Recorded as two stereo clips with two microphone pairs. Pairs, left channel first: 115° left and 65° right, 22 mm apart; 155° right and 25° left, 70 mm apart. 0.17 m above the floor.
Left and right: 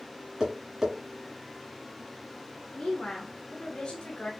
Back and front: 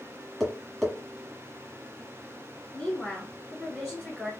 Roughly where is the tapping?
Right.